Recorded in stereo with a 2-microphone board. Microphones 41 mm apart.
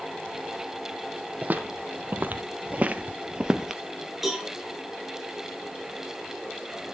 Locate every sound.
1.4 s footsteps: 40° right (ahead or behind), 1.3 m; by 3.8 s 10° right (ahead or behind), 0.8 m
4.2 s a cowbell: centre (ahead or behind), 5 m